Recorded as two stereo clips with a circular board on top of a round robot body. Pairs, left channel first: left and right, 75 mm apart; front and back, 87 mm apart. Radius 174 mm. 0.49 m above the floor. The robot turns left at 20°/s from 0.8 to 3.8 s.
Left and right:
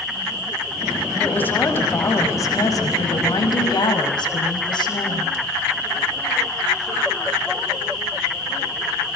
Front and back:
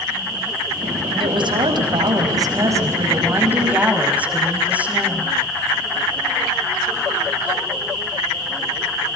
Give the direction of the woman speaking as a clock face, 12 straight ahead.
7 o'clock.